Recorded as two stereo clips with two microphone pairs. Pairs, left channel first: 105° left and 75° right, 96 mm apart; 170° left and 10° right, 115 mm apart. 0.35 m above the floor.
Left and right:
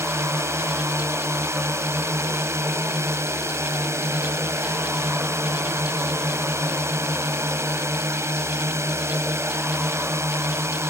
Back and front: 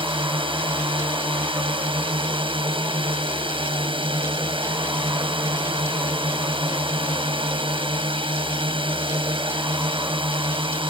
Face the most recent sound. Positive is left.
turn(degrees=-25)